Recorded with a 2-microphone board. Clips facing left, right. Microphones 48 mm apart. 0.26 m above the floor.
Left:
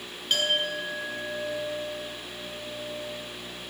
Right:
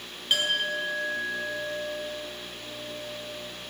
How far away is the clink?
About 1.8 m.